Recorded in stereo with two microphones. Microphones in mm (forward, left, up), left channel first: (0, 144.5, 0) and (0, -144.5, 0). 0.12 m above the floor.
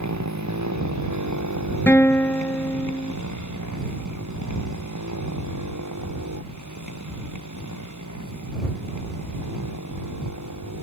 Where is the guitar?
10° left (ahead or behind).